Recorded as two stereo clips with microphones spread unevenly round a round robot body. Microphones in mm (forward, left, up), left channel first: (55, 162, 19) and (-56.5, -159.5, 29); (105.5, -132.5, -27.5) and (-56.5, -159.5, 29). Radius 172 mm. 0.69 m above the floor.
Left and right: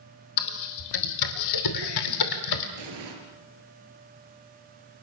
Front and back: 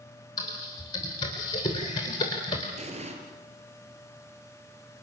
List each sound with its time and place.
0.4 s typing on a keyboard: 75° left, 2.5 m
2.8 s an explosion: 125° right, 6.5 m